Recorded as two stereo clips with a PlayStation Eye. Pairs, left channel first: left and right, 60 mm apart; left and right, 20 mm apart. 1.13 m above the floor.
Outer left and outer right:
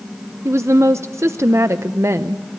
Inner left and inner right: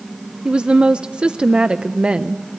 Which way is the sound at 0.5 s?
50° right (ahead or behind).